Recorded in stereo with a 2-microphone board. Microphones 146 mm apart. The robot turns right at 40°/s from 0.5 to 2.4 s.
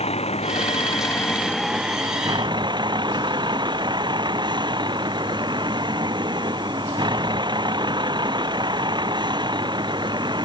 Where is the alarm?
I don't hear an alarm.